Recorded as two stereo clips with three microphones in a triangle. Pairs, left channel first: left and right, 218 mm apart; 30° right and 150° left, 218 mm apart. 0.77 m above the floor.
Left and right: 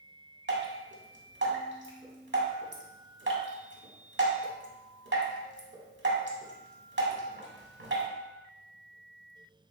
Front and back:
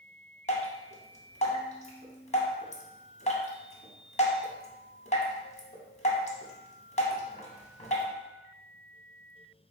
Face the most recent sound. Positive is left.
turn(degrees=-85)